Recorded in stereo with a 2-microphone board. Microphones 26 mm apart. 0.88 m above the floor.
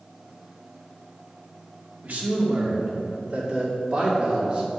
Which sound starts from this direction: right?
A man speaking, at 2.0 s.